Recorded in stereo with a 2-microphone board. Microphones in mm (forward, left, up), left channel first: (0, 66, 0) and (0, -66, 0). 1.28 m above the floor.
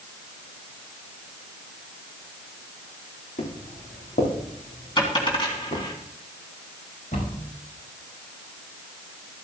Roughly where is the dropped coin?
Left.